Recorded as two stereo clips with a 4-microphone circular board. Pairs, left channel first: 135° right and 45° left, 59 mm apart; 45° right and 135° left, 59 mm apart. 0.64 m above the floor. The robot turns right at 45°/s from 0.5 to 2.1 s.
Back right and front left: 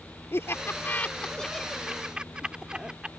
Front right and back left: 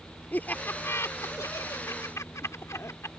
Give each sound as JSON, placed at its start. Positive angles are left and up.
{"t": 0.3, "sound": "laughter", "azimuth_deg": -100}